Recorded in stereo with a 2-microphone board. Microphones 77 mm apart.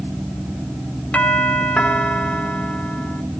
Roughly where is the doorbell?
Centre.